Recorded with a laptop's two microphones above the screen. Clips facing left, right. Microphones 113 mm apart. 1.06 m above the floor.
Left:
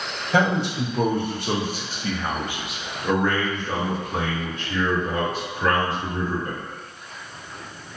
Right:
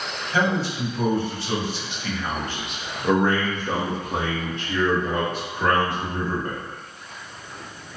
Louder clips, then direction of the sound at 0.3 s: Left 2 dB; 70° left (ahead or behind).